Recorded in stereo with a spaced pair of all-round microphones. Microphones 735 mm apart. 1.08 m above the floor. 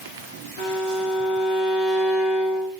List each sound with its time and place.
0.6 s a violin: 55° left (ahead or behind), 1.7 m